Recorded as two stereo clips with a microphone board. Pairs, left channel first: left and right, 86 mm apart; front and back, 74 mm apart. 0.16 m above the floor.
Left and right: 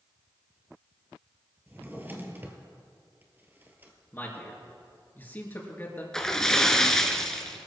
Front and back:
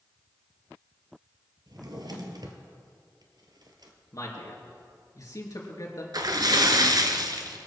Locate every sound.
1.7 s a drawer: 155° right, 1.5 m
4.1 s a man speaking: 25° left, 3 m
6.1 s a splash: 170° left, 1.1 m